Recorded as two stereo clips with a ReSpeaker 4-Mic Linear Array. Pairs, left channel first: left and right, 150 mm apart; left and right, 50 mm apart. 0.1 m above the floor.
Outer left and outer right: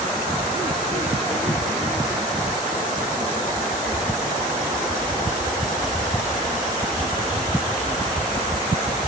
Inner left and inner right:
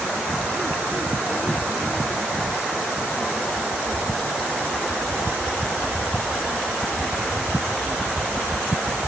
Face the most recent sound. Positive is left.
No sound to turn to.